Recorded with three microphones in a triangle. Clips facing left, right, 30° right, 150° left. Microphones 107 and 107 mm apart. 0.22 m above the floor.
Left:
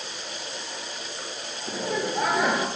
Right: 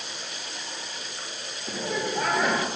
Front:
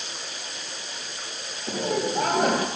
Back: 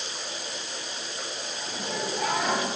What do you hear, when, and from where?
1.7 s laughter: 10° left, 4 m